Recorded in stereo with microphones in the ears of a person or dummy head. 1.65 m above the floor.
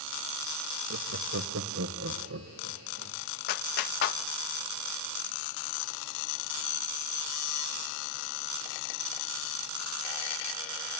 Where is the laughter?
85° right, 1.2 m; by 3.2 s 80° right, 2.5 m.